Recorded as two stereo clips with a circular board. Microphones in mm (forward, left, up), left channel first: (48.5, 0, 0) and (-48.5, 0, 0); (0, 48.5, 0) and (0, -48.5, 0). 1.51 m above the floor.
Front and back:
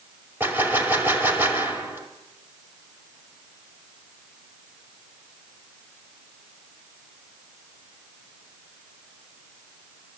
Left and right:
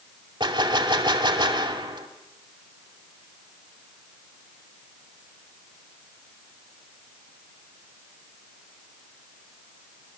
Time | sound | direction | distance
0.4 | a gunshot | 115° right | 2.5 m